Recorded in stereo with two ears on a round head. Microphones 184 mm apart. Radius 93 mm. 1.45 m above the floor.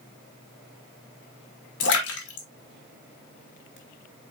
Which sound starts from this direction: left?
A splash, at 1.8 s.